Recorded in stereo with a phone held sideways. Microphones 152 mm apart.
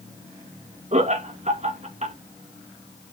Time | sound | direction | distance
0.9 | laughter | 50° right (ahead or behind) | 1.3 m